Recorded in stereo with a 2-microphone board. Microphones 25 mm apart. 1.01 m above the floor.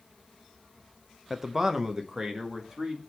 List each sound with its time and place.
1.3 s a man speaking: 10° right (ahead or behind), 0.6 m; by 3.0 s 20° right (ahead or behind), 2 m